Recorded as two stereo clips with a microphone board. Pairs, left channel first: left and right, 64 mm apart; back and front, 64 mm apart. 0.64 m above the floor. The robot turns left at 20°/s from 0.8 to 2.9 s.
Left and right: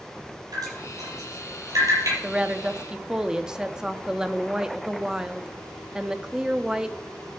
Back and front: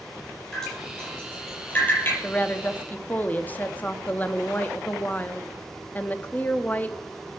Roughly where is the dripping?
Right.